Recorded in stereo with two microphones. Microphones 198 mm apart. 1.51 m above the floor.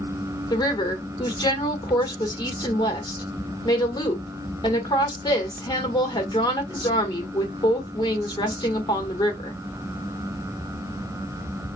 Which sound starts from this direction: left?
A woman speaking, at 0.5 s.